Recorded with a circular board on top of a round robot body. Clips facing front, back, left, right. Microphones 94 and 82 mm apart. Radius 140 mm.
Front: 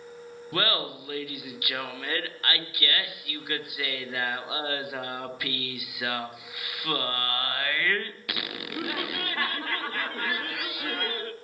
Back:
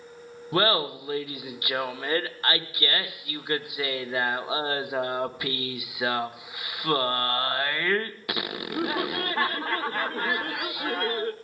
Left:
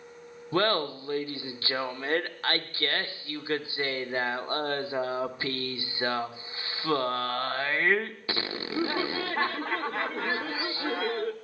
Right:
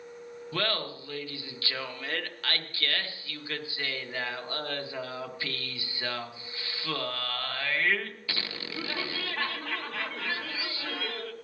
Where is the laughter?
130° left, 1.0 m.